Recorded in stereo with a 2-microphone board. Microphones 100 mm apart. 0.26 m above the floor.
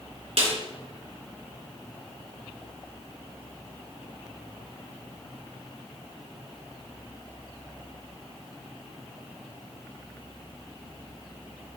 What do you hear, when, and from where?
0.4 s a snare drum: 70° right (ahead or behind), 3.5 m